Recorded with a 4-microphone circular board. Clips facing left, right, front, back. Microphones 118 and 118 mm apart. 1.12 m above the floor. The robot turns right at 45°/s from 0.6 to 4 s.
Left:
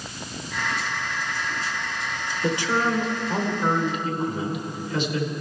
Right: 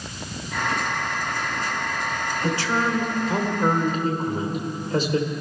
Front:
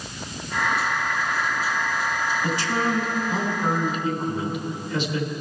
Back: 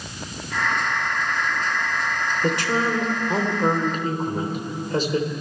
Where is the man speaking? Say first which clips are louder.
Left 1 dB, back 4 dB; 155° left, 3.5 m; by 5.3 s 135° right, 3.5 m.